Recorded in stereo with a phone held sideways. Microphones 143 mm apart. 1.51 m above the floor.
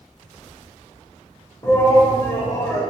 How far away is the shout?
About 0.6 m.